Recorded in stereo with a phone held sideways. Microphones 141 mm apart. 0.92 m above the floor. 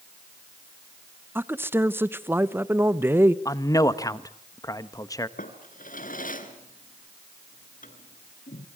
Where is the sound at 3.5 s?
25° left (ahead or behind), 1.2 m.